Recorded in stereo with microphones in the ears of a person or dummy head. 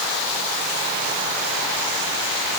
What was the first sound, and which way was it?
Only background noise.